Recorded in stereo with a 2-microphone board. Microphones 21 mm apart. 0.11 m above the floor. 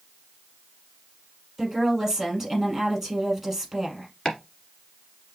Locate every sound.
1.6 s a woman speaking: 10° right (ahead or behind), 3.5 m
4.2 s chopping: 25° left (ahead or behind), 1.7 m